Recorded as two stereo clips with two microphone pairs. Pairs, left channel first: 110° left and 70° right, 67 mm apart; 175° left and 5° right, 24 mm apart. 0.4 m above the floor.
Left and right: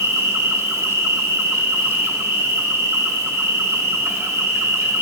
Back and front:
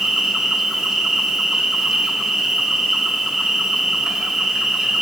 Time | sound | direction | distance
0.0 | an insect | 70° right | 1.0 m